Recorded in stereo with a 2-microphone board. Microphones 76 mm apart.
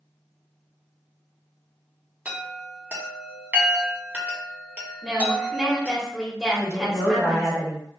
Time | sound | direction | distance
2.2 | a chime | 20° right (ahead or behind) | 0.9 m
5.0 | a woman speaking | 10° right (ahead or behind) | 1.1 m
6.5 | a woman speaking | 40° right (ahead or behind) | 1.9 m